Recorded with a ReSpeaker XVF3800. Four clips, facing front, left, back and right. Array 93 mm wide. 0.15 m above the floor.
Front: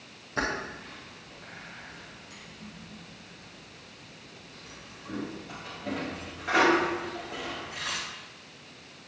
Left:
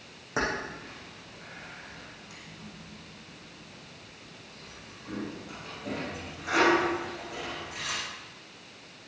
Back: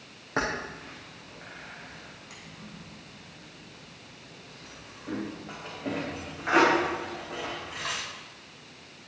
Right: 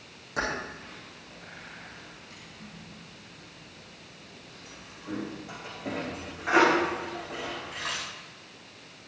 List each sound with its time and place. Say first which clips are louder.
0.4 s keys jangling: left 1 dB, back 1 dB; 155° left, 5.5 m; by 8.0 s 140° right, 6.5 m